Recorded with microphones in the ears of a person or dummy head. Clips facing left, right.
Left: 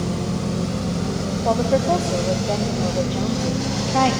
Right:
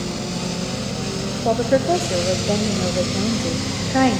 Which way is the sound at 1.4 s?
20° right (ahead or behind).